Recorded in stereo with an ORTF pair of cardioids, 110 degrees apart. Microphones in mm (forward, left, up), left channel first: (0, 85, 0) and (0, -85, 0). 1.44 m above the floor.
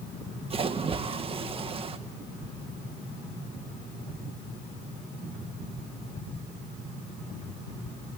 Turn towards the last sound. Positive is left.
turn(degrees=-35)